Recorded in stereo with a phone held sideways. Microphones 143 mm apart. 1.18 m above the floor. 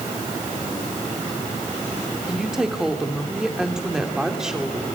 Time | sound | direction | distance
2.3 | a woman speaking | 5° right (ahead or behind) | 3 m